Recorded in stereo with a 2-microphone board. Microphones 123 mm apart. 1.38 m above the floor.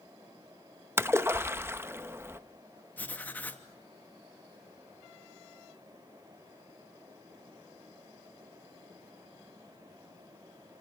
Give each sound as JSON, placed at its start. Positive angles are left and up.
{"t": 1.0, "sound": "a splash", "side_deg": -20, "distance_m": 0.8}
{"t": 3.0, "sound": "writing", "side_deg": 15, "distance_m": 2.5}